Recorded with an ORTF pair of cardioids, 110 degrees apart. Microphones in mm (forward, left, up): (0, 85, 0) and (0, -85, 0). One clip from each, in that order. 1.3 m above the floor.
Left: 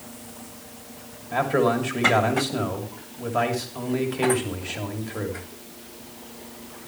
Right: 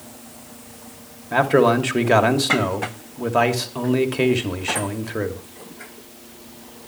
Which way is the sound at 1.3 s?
40° right.